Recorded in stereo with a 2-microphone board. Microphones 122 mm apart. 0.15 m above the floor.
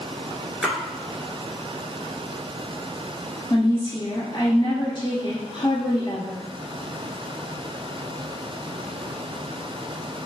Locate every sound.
0.6 s a splash: 5° left (ahead or behind), 1.2 m
3.5 s a woman speaking: 35° left (ahead or behind), 1.8 m